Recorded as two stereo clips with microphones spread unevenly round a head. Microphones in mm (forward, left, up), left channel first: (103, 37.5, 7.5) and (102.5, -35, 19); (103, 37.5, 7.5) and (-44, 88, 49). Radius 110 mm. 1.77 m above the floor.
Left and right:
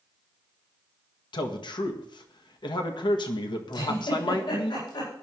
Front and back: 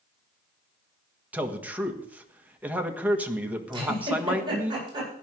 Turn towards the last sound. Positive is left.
turn(degrees=100)